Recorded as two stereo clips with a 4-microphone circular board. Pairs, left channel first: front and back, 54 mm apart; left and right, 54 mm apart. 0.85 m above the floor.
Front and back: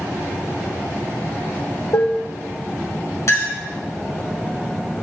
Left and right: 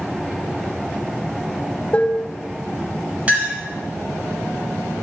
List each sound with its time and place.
1.9 s dishes clattering: 25° left, 0.7 m
3.3 s a clink: 25° right, 2 m